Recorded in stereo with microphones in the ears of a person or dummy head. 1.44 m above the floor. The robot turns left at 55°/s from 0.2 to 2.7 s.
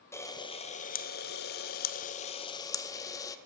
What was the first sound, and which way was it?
A camera shutter, 160° left.